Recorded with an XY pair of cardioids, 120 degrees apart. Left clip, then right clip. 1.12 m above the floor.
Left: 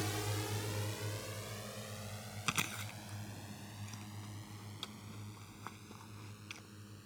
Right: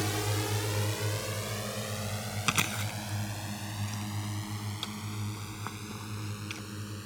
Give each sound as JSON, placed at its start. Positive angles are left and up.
{"t": 0.0, "sound": "a drone", "azimuth_deg": -40}
{"t": 2.5, "sound": "chewing", "azimuth_deg": -40}